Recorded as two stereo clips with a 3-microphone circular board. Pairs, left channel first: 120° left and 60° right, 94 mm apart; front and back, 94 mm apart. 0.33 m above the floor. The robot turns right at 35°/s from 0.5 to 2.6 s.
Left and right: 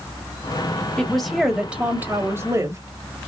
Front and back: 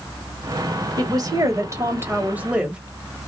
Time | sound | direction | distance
1.0 | a woman speaking | 160° right | 1.3 m